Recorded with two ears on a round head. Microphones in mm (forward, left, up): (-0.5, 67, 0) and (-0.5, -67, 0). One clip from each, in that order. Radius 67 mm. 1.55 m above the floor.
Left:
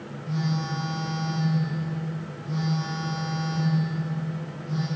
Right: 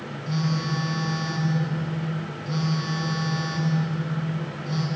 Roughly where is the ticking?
I don't hear ticking.